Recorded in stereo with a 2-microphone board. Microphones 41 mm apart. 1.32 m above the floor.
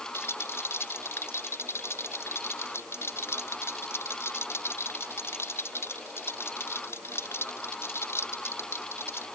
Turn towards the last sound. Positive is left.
turn(degrees=85)